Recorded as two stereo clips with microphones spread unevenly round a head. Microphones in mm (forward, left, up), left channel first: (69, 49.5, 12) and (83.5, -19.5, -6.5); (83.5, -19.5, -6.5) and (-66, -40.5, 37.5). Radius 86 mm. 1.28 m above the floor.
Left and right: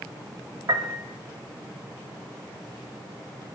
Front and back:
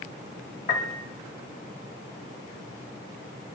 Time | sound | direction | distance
0.7 | a piano | 40° right | 2.5 m